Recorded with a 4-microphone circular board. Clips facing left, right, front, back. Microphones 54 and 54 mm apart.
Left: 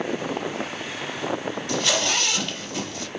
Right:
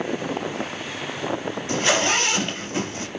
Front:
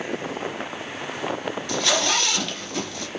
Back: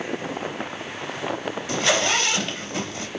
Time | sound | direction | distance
1.7 | a zipper | 125° right | 2 m